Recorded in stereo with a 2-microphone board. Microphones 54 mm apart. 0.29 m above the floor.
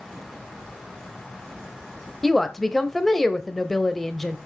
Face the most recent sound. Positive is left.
turn(degrees=5)  # may be behind; listen again after turning